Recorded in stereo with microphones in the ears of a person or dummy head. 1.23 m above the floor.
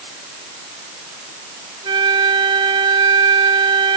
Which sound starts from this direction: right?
A flute, at 1.8 s.